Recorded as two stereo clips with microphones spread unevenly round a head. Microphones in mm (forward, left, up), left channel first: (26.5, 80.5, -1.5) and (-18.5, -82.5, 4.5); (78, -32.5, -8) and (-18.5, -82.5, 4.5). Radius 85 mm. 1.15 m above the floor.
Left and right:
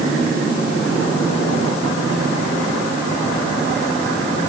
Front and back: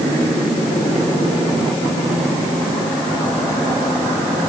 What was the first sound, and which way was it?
Only background noise.